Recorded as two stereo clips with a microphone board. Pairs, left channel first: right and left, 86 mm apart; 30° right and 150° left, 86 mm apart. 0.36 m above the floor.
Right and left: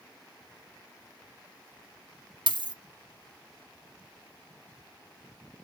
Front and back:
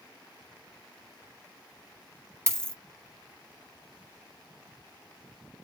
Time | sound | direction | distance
2.5 | a dropped coin | 90° left | 0.8 m